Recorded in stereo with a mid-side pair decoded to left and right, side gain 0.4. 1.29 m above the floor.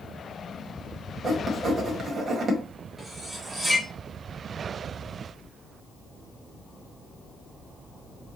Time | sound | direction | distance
1.2 | writing | 45° right | 1.2 m
3.0 | cutlery clinking | 15° right | 1.2 m